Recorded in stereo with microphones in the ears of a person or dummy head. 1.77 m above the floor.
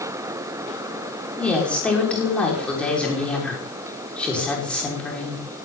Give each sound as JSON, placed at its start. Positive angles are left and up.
{"t": 1.4, "sound": "a woman speaking", "side_deg": 0, "distance_m": 5.5}